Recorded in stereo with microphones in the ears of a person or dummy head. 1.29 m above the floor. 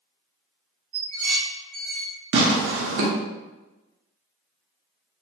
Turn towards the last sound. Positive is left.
turn(degrees=-65)  # may be behind; listen again after turning